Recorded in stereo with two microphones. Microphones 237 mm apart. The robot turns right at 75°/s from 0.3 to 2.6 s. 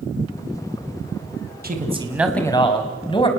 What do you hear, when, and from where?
1.6 s a man speaking: 50° right, 2.5 m; by 3.3 s 25° left, 2.5 m